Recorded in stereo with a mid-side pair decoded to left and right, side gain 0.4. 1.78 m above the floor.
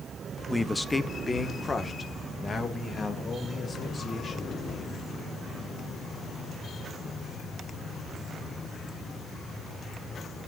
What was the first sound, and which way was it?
A man speaking, 5° left.